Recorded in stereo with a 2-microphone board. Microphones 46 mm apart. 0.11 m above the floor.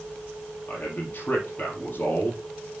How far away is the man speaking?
About 3.5 m.